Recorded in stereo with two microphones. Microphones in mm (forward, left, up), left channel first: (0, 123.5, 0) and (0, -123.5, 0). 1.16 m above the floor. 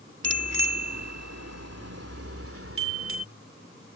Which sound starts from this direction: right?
A bicycle bell, at 0.2 s.